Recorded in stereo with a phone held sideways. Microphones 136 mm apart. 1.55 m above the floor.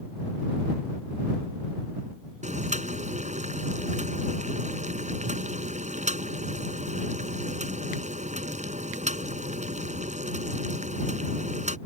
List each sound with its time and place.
2.4 s boiling: 60° right (ahead or behind)